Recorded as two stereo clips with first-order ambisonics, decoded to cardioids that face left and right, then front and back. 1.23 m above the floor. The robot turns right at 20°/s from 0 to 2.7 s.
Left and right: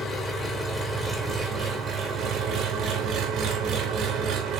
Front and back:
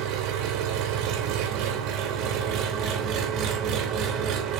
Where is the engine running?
160° left, 1.6 m; by 4.6 s 145° right, 1.6 m.